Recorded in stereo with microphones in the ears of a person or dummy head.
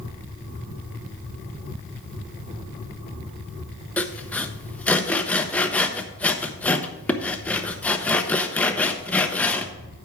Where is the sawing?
5° left (ahead or behind), 0.7 m.